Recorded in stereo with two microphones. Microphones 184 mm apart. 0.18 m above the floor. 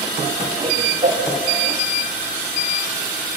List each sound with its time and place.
0.6 s a whoosh: 40° right (ahead or behind), 4.5 m